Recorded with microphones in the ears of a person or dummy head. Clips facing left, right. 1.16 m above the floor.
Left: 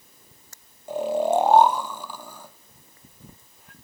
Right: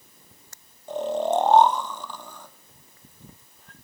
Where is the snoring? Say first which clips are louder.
Left 2 dB; 10° left (ahead or behind), 0.6 m.